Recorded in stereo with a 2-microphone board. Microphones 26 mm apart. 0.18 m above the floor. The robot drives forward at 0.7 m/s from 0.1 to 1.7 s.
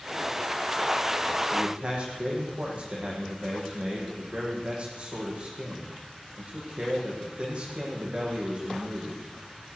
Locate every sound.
1.5 s a man speaking: 45° right (ahead or behind), 10 m